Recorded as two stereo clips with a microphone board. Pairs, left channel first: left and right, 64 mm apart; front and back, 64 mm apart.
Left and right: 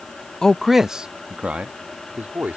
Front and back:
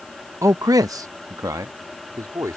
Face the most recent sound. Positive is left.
turn(degrees=-150)